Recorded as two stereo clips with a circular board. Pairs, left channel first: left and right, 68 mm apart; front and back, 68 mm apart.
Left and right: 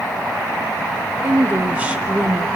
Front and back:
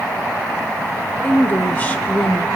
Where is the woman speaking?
45° right, 1.1 m.